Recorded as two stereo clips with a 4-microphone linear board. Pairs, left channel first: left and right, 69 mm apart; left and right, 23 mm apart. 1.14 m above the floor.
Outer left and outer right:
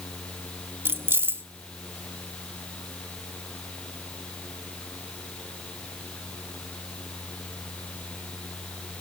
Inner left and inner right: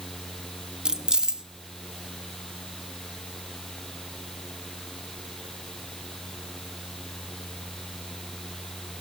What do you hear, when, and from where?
0.8 s keys jangling: 30° right (ahead or behind), 0.9 m